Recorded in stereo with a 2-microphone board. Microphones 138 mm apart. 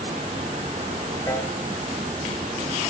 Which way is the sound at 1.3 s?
20° left (ahead or behind).